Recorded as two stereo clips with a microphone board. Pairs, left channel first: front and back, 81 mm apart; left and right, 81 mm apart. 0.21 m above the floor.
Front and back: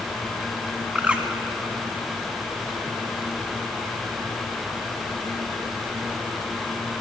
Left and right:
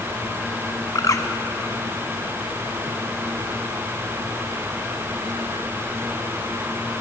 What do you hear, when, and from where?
0.9 s a bird: 110° left, 1.0 m